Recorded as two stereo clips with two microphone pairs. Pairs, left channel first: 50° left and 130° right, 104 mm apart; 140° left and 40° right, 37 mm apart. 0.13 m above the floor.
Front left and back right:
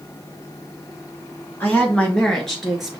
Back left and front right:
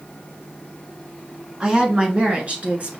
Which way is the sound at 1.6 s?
Straight ahead.